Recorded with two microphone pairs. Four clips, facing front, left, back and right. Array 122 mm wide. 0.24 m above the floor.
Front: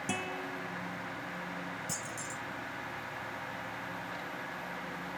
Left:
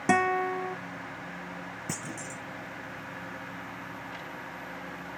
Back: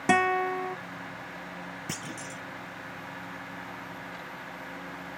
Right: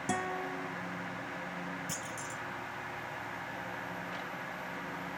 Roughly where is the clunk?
Behind left.